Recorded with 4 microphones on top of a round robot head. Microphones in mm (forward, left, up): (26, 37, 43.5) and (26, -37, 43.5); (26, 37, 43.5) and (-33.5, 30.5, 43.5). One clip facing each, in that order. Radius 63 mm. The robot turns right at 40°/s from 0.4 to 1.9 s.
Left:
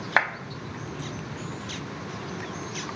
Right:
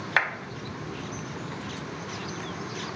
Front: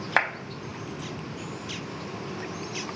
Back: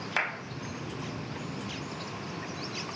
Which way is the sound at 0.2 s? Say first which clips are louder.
Left 2 dB, front 7 dB; 30° left.